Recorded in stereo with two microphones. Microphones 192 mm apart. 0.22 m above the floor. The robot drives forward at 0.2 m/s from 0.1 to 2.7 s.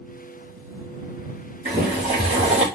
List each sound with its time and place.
1.6 s boiling: 30° left (ahead or behind), 3 m; by 2.6 s 35° left (ahead or behind), 3 m